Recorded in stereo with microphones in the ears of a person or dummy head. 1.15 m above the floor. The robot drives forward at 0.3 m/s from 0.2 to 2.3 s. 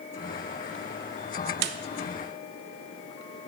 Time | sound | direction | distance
1.6 | a snare drum | 50° right (ahead or behind) | 0.6 m